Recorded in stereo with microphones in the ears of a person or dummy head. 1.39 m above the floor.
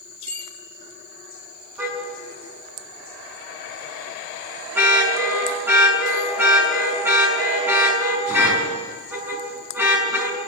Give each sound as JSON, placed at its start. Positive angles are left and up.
{"t": 0.3, "sound": "a bicycle bell", "side_deg": -30, "distance_m": 6.0}
{"t": 1.8, "sound": "a car horn", "side_deg": -10, "distance_m": 6.0}